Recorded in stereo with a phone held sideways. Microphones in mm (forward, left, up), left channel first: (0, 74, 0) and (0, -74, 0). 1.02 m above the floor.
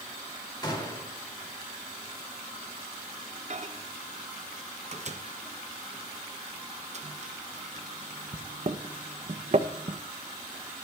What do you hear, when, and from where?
0.6 s a gunshot: 30° left (ahead or behind), 2.5 m
3.5 s a microwave: 50° right (ahead or behind), 0.6 m